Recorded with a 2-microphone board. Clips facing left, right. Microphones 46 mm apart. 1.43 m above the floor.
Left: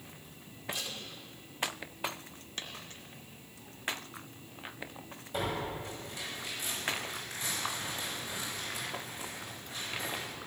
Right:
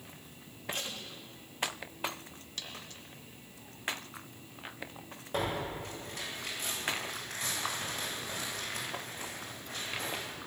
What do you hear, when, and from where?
0.7 s tape being pulled: 55° right (ahead or behind), 3 m
2.6 s a dropped coin: 30° left (ahead or behind), 3 m
5.3 s tearing paper: 55° right (ahead or behind), 9 m